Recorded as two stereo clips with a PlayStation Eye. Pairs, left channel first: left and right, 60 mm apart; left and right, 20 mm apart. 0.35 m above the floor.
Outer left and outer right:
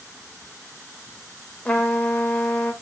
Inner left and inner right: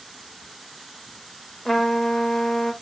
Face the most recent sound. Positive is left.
turn(degrees=25)  # may be behind; listen again after turning